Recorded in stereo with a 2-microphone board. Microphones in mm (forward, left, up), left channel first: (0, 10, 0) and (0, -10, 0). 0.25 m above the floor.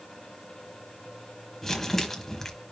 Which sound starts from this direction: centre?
Crumpling, at 1.6 s.